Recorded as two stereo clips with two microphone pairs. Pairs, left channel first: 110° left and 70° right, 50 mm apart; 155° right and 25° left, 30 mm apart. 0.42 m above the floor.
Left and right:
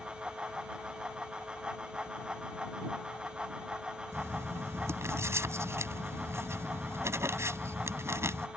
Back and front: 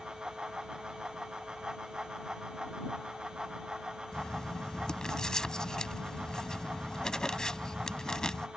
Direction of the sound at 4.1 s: 85° right.